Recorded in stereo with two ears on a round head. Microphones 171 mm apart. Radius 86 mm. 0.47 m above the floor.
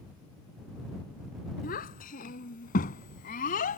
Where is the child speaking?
50° left (ahead or behind); by 3.8 s 45° left (ahead or behind).